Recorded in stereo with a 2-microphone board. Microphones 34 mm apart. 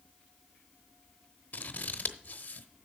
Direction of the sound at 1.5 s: 55° left (ahead or behind).